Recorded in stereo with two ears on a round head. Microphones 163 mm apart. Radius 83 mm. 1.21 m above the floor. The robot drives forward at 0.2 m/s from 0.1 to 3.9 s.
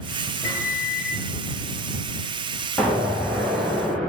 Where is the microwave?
35° left (ahead or behind), 1.4 m; by 1.2 s 40° left (ahead or behind), 1.2 m.